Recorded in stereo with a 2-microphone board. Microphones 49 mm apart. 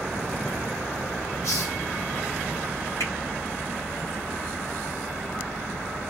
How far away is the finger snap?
About 2.5 m.